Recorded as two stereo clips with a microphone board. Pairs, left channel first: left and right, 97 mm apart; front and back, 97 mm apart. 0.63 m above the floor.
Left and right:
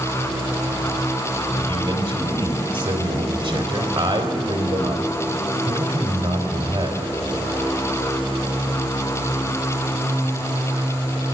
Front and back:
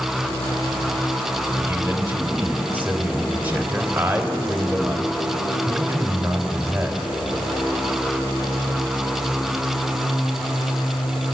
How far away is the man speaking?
About 3.5 m.